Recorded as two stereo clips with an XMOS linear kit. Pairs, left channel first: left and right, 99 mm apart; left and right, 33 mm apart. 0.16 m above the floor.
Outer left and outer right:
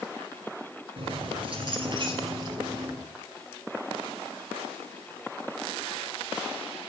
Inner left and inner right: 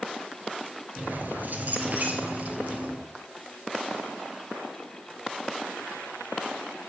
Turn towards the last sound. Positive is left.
turn(degrees=-40)  # may be behind; listen again after turning